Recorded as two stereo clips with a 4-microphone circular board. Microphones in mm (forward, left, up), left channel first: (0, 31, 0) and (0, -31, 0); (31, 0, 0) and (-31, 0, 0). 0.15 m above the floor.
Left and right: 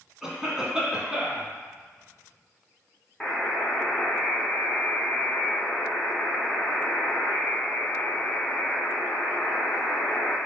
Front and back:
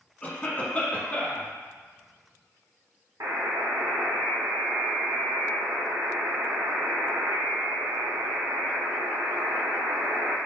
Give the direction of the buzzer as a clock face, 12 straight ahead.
6 o'clock.